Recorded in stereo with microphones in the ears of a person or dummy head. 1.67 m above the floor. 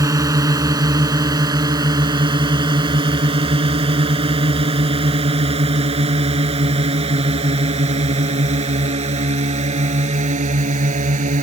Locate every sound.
0.0 s a drone: 20° right (ahead or behind); by 11.4 s 40° right (ahead or behind)